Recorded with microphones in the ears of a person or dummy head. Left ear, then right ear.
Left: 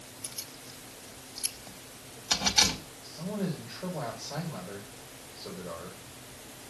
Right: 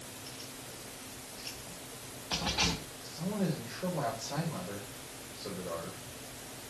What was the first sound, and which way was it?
Keys jangling, 80° left.